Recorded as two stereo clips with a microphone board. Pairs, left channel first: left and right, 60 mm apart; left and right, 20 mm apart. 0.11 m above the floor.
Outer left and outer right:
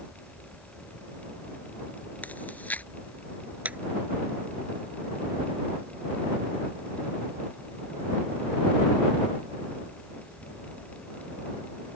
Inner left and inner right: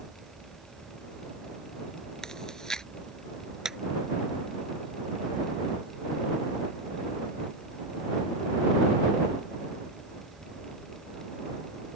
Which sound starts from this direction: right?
A clap, at 3.6 s.